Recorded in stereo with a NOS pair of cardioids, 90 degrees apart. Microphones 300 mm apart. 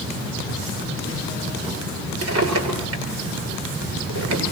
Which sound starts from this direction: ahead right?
A drawer, at 2.2 s.